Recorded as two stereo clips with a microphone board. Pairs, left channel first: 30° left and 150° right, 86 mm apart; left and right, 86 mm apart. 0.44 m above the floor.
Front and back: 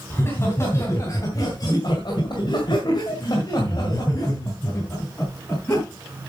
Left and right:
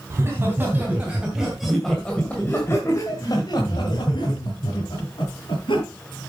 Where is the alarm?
I don't hear an alarm.